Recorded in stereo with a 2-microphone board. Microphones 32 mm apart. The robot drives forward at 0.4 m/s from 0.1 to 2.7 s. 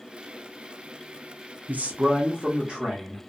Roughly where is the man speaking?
Right.